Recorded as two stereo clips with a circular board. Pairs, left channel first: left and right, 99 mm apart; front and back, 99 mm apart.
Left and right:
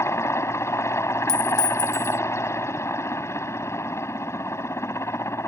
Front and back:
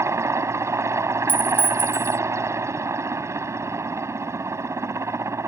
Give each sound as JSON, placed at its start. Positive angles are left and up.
{"t": 0.0, "sound": "a helicopter", "azimuth_deg": 135}
{"t": 1.3, "sound": "a clink", "azimuth_deg": -60}